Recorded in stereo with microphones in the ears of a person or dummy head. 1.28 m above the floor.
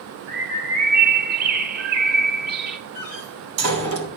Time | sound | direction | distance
0.3 | a bird | 50° right (ahead or behind) | 2 m
3.0 | a door slam | 75° right (ahead or behind) | 3 m